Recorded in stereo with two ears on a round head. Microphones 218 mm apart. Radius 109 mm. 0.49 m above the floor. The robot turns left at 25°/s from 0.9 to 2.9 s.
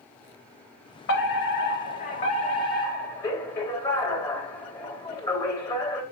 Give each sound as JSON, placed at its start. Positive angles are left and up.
{"t": 1.1, "sound": "a fire alarm", "azimuth_deg": 65, "distance_m": 3.5}